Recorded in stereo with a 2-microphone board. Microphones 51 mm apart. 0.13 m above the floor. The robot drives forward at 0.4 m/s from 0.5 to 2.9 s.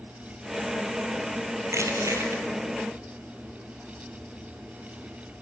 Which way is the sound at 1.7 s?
65° right (ahead or behind).